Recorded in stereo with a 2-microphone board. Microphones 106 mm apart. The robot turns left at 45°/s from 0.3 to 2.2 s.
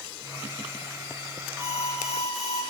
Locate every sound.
1.6 s an alarm: 25° right (ahead or behind), 9 m; by 2.6 s centre (ahead or behind), 9 m